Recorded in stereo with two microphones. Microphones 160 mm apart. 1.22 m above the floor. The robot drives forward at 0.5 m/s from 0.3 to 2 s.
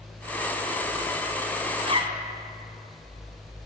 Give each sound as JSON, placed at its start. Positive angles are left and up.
{"t": 1.8, "sound": "a zipper", "side_deg": -40, "distance_m": 1.6}